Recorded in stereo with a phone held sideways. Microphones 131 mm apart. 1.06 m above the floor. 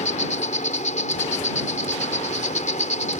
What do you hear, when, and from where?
0.0 s an insect: 70° left (ahead or behind)